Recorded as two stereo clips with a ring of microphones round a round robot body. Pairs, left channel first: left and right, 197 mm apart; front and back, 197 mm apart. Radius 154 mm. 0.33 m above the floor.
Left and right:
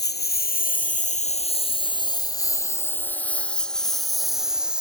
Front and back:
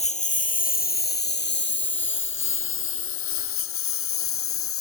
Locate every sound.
0.0 s a lawn mower: 55° left; by 4.8 s 5° right